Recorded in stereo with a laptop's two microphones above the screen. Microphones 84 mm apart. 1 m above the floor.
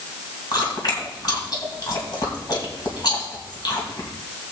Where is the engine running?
I don't hear an engine running.